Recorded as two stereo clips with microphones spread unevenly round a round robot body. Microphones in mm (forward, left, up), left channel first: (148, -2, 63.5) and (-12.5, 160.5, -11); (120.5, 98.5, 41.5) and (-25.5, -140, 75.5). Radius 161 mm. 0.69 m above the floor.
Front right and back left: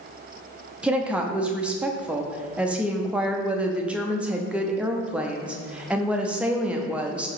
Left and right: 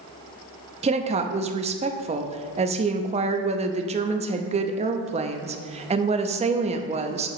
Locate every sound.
0.8 s a woman speaking: straight behind, 0.5 m